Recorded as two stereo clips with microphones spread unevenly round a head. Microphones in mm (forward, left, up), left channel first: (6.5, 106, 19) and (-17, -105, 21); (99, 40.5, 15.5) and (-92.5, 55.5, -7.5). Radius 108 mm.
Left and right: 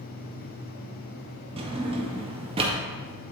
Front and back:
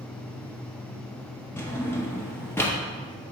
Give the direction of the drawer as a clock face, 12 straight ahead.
2 o'clock.